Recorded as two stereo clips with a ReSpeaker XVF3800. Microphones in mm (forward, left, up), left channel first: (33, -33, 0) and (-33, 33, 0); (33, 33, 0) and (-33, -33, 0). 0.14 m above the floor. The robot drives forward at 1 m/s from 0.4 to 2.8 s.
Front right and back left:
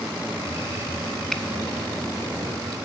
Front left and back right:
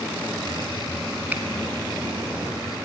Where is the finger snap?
115° right, 1.0 m; by 1.4 s 130° right, 1.1 m.